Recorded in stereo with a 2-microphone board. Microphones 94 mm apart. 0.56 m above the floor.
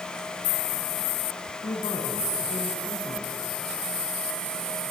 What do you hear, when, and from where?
1.6 s a man speaking: 80° left, 5.5 m